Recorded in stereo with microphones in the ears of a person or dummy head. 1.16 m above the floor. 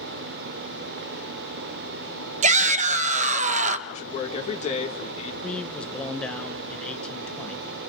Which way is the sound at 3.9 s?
40° left (ahead or behind).